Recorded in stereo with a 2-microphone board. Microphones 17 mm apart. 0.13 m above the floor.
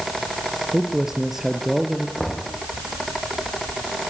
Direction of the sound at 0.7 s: 30° right (ahead or behind).